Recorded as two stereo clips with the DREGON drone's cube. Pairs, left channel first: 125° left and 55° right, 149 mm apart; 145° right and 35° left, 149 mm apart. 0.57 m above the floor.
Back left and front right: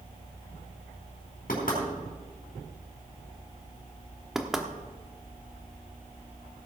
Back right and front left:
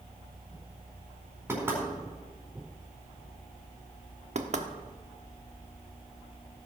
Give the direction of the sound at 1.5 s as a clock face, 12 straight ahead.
8 o'clock.